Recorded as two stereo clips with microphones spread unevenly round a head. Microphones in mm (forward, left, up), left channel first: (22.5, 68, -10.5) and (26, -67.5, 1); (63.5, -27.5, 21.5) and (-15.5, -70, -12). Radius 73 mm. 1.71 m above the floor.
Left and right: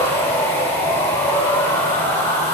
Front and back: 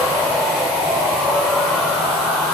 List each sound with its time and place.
0.0 s a machine running: 30° left, 1.5 m